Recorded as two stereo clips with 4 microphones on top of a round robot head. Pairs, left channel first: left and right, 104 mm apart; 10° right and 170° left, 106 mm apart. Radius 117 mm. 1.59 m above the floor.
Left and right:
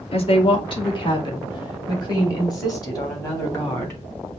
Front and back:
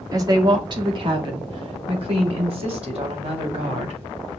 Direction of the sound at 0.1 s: 115° left.